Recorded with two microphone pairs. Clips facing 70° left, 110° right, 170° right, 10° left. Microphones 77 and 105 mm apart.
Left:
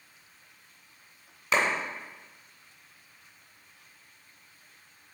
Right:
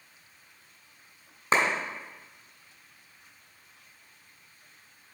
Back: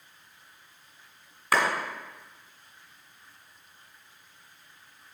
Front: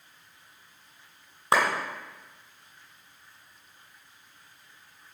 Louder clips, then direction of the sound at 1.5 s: Right 2 dB, front 2 dB; 50° right.